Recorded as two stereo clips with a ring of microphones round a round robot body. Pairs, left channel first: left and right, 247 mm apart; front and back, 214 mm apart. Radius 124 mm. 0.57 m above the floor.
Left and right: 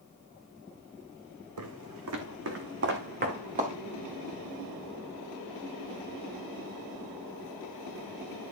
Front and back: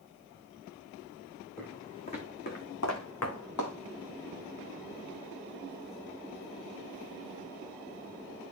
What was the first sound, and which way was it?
Footsteps, 85° right.